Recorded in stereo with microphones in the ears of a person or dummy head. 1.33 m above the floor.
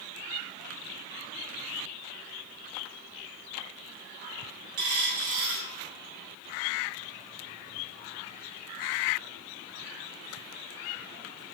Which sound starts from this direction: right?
A dropped coin, at 4.8 s.